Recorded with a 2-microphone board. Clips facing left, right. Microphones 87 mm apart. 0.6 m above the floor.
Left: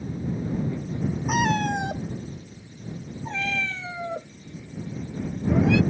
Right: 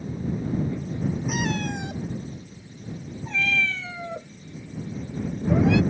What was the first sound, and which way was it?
A cat meowing, 55° left (ahead or behind).